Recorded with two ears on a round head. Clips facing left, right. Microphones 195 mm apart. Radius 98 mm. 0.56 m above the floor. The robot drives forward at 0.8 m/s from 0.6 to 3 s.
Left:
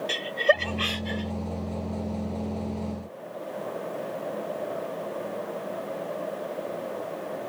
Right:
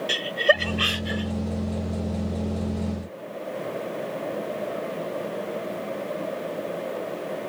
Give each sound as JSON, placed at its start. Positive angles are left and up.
{"t": 0.1, "sound": "laughter", "side_deg": -10}